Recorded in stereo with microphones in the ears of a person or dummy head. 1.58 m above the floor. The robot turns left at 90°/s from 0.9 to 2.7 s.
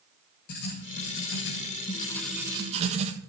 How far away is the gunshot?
No gunshot in this recording.